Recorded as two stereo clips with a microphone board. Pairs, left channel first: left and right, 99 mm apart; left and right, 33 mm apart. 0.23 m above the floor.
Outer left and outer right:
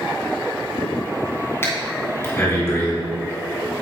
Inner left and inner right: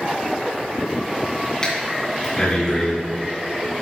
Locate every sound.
1.6 s breathing: 25° left (ahead or behind), 2.5 m